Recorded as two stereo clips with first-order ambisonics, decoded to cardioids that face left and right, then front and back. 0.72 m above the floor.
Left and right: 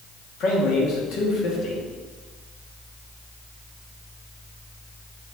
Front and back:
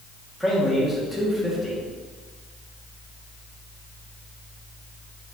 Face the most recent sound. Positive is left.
turn(degrees=95)